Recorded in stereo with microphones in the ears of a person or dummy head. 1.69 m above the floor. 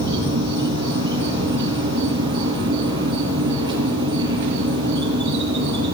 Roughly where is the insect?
Right.